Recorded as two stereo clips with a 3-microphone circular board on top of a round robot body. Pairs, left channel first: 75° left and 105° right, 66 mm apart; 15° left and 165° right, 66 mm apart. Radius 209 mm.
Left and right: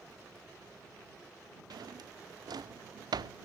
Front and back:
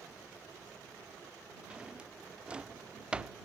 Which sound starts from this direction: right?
A drawer, at 1.7 s.